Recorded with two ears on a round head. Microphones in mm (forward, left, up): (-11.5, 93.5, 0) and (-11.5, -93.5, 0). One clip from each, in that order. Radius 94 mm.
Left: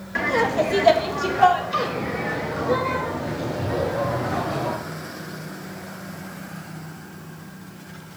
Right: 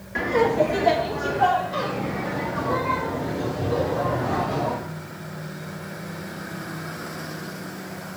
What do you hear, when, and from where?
0.1 s laughter: 35° left (ahead or behind), 1.3 m; by 4.8 s 50° left (ahead or behind), 3 m